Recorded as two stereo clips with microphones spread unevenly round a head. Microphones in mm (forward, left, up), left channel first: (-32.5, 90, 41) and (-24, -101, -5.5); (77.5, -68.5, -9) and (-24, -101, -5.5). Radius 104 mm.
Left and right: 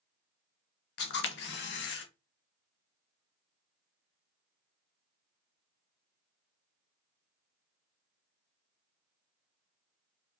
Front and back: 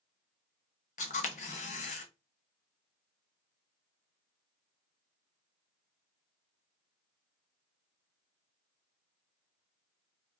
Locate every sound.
1.0 s a camera shutter: 50° left, 0.7 m